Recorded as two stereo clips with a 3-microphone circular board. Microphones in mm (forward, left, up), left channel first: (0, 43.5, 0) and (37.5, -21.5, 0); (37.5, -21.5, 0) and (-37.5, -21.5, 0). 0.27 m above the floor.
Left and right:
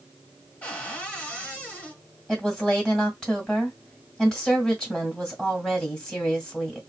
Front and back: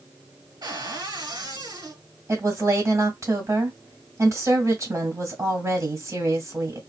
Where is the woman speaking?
165° right, 2 m.